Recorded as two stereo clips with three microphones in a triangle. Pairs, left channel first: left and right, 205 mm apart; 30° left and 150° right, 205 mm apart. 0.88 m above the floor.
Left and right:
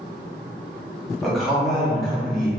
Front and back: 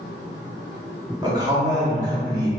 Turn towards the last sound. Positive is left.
turn(degrees=175)